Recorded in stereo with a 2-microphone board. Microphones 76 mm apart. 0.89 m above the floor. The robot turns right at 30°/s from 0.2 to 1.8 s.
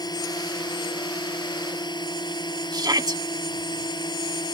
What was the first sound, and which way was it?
A drone, 60° left.